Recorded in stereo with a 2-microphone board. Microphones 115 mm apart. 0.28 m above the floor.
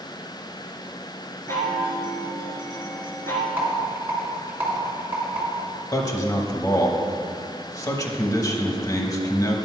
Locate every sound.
1.5 s a chime: 20° left (ahead or behind), 1.9 m
3.6 s a rattle: 20° right (ahead or behind), 2.5 m
5.9 s a man speaking: 35° left (ahead or behind), 1.1 m